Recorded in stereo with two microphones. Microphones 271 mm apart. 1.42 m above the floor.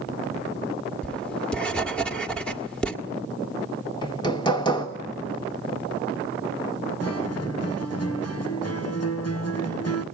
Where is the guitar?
60° left (ahead or behind), 1.3 m.